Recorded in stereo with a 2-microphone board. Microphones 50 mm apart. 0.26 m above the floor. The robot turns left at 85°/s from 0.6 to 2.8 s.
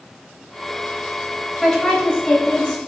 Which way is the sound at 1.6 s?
5° left (ahead or behind).